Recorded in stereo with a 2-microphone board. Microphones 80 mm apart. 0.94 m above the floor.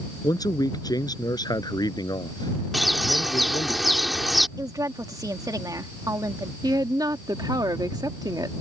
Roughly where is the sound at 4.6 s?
Right.